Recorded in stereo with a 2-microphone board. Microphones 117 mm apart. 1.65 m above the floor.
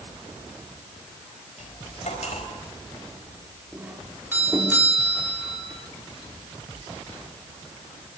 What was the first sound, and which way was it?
Cutlery clinking, 70° left (ahead or behind).